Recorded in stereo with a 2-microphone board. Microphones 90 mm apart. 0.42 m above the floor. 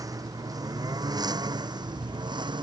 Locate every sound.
0.0 s a lawn mower: 40° right (ahead or behind); by 2.6 s 55° right (ahead or behind)